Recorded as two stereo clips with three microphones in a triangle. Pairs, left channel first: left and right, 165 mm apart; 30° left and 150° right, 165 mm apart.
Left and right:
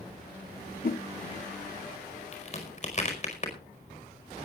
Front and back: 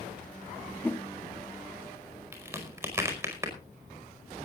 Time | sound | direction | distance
0.8 | a whoosh | 110° left | 0.6 m
2.3 | a crack | 135° left | 4.5 m